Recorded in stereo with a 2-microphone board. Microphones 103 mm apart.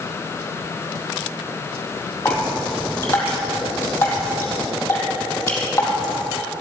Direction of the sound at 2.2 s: 20° left (ahead or behind).